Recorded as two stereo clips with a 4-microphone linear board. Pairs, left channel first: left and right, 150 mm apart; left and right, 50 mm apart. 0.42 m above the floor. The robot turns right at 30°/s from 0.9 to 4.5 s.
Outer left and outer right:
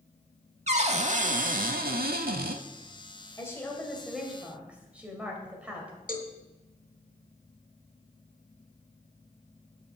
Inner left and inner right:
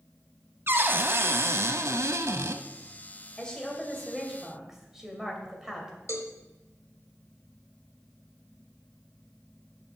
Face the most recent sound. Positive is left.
turn(degrees=65)  # may be behind; listen again after turning